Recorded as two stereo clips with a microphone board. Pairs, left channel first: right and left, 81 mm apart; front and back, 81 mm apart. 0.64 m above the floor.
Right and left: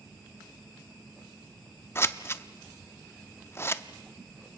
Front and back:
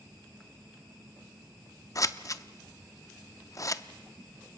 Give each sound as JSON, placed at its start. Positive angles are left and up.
{"t": 1.9, "sound": "scissors", "azimuth_deg": -35, "distance_m": 0.6}